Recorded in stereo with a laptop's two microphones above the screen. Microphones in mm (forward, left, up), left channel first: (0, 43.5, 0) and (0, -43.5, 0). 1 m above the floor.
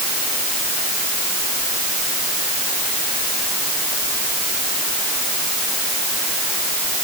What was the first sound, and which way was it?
Only background noise.